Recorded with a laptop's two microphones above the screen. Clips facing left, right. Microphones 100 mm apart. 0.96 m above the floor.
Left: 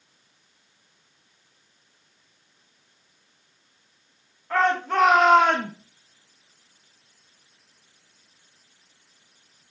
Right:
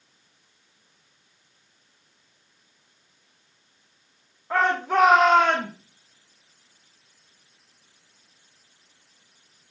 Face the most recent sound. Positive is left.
turn(degrees=30)  # may be behind; listen again after turning